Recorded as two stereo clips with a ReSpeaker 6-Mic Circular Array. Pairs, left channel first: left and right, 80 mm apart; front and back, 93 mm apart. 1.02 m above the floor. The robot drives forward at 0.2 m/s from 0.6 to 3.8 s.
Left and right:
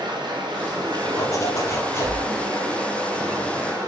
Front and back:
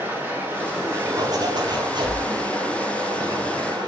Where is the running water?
110° right, 0.9 m; by 3.9 s 140° right, 1.2 m.